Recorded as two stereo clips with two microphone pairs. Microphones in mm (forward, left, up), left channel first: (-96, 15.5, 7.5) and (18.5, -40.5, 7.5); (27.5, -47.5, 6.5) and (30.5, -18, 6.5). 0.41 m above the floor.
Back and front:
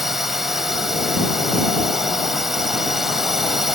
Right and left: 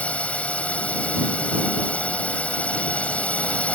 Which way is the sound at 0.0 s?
115° right.